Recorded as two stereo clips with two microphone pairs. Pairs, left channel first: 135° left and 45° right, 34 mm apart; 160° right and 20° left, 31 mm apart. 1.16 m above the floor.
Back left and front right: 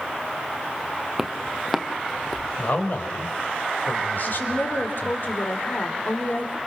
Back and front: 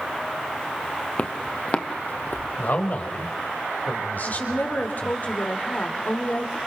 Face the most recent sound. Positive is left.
turn(degrees=165)